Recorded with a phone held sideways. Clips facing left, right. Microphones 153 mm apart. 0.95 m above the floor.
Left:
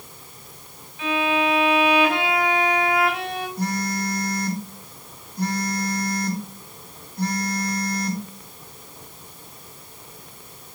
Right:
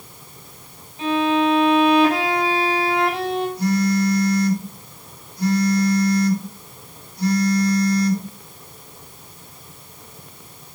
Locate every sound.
1.0 s a violin: 35° right (ahead or behind), 6 m
3.6 s a phone buzzing: 50° left (ahead or behind), 2.5 m